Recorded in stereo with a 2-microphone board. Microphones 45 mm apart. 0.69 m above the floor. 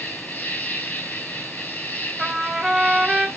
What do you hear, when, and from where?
0.0 s an insect: 40° left (ahead or behind), 2.5 m
2.2 s a trumpet: centre (ahead or behind), 2 m